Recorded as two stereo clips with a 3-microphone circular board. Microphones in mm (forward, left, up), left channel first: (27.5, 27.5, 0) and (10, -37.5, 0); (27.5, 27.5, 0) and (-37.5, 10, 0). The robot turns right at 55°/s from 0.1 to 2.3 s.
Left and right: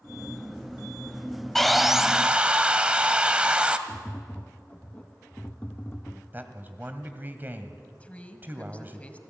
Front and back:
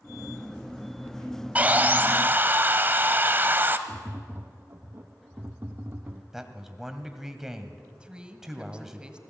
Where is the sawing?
155° left, 1.1 m; by 3.8 s 160° right, 1.1 m.